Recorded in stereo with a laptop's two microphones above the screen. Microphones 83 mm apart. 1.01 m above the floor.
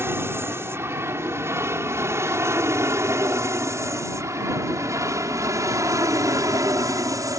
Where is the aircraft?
30° right (ahead or behind); by 7.4 s 45° right (ahead or behind).